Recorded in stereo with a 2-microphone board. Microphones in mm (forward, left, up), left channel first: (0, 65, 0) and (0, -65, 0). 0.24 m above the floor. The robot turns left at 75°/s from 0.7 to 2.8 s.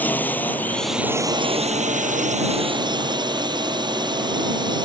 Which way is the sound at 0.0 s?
15° left.